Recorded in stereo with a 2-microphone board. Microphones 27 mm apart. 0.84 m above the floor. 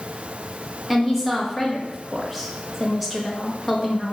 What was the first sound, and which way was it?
A woman speaking, centre (ahead or behind).